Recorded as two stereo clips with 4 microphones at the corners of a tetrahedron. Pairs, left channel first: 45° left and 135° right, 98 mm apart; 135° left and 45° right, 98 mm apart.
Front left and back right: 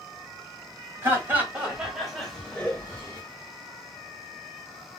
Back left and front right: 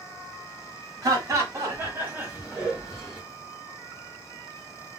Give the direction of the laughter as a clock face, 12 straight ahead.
3 o'clock.